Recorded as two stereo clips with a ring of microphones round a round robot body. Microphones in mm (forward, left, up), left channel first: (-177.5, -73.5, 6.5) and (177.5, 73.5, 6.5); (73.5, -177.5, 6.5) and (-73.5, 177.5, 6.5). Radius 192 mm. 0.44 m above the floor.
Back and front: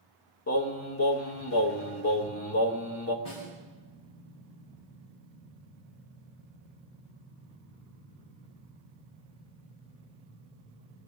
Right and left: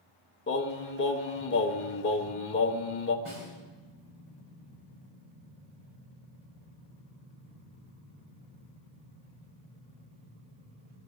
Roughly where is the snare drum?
Behind.